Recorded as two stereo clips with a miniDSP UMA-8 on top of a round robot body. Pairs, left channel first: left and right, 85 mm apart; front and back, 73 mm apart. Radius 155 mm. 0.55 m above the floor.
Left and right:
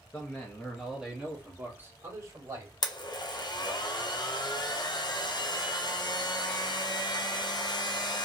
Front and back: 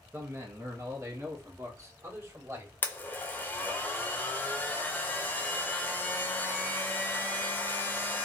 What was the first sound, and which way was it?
A man speaking, 145° left.